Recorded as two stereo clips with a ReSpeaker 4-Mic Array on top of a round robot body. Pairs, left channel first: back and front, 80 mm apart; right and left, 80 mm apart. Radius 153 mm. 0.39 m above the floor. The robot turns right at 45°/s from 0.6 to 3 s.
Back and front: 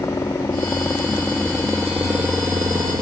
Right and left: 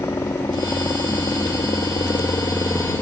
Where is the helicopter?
135° right; by 3.0 s 30° right.